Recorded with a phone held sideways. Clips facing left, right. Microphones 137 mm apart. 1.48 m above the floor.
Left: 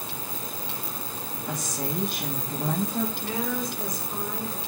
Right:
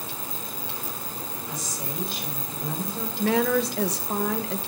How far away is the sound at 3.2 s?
About 1.3 m.